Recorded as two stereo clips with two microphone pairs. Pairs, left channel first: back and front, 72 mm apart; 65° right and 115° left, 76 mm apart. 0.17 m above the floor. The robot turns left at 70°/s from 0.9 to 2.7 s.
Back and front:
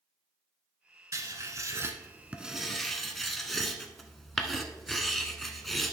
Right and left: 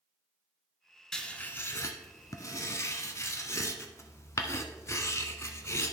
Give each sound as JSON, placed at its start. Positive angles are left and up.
{"t": 1.1, "sound": "writing", "azimuth_deg": 15, "distance_m": 0.8}